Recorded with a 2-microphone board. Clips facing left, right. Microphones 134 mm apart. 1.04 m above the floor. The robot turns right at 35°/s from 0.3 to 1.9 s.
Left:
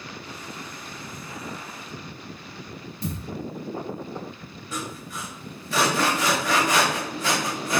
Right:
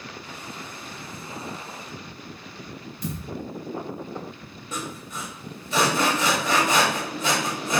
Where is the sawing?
20° right (ahead or behind), 0.9 m.